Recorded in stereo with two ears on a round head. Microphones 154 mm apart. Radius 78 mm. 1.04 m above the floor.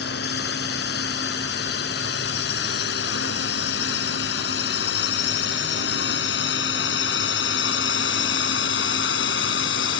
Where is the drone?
70° left (ahead or behind); by 10.0 s 80° left.